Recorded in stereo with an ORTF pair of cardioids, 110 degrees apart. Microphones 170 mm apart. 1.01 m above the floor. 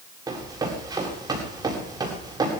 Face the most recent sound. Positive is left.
turn(degrees=-25)